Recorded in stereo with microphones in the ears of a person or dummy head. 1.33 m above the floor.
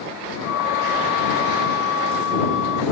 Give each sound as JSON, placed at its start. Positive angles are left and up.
{"t": 0.4, "sound": "a flute", "side_deg": 80}